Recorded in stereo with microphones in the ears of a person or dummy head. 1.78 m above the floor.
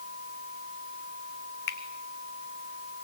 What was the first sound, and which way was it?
A finger snap, 55° left (ahead or behind).